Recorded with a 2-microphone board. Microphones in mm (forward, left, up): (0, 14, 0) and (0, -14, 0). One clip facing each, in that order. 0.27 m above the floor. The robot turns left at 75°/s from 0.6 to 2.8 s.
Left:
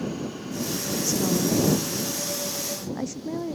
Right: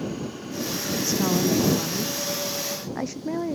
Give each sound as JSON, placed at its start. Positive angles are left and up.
{"t": 1.0, "sound": "a woman speaking", "azimuth_deg": -15}